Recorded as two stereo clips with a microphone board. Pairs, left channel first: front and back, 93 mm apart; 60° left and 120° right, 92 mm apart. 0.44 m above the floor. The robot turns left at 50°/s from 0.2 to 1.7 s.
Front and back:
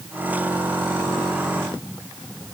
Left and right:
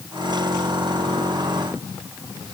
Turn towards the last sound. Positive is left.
No sound to turn to.